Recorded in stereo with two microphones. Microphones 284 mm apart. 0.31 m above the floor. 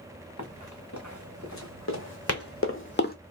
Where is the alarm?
I don't hear an alarm.